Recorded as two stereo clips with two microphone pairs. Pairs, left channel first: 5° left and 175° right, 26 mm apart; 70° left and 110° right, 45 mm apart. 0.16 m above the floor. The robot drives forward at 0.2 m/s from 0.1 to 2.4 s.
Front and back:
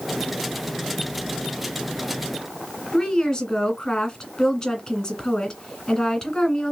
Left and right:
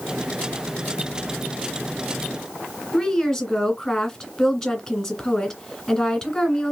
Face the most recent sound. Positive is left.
turn(degrees=-5)